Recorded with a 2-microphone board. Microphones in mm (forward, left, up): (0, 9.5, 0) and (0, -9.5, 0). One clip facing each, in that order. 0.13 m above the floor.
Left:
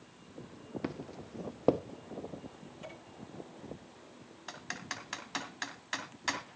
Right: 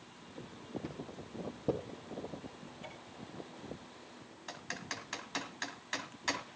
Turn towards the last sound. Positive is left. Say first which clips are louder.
# left 1 dB
turn(degrees=5)  # may be behind; listen again after turning